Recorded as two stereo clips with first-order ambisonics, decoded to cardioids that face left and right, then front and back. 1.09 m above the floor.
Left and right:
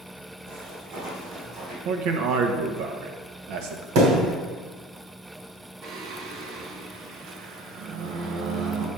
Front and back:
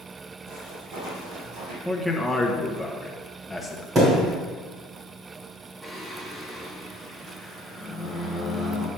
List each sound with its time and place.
0.5 s footsteps: 130° right, 3.5 m; by 1.8 s 150° right, 2.0 m
1.9 s a man speaking: 90° right, 0.9 m
4.0 s a thud: 105° right, 2 m
5.8 s singing: 100° right, 0.9 m